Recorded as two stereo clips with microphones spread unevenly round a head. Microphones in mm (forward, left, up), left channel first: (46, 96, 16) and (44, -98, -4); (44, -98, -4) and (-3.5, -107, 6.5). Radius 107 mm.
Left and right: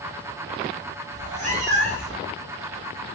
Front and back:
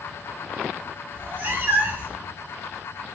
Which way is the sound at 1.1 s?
150° right.